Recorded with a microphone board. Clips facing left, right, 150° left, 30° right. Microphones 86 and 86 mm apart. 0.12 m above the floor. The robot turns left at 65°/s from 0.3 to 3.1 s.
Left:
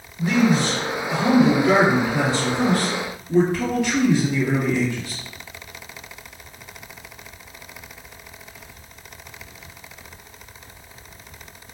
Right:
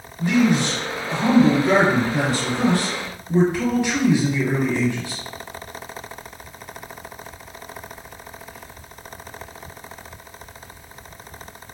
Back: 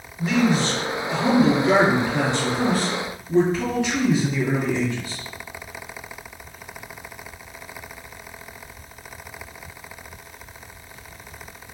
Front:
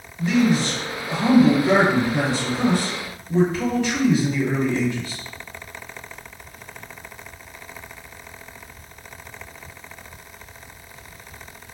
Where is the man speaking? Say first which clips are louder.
Even, front 1 dB; 40° left, 1.4 m; by 5.2 s 140° right, 1.4 m.